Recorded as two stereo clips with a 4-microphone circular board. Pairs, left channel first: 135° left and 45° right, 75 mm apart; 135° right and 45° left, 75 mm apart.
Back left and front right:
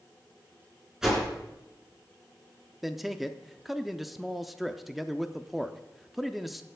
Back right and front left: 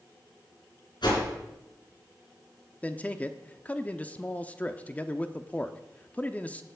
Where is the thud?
I don't hear a thud.